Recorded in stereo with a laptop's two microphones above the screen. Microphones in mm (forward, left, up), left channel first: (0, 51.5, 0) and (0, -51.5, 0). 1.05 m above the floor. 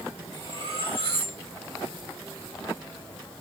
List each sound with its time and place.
0.3 s cutlery clinking: 65° right (ahead or behind), 2.5 m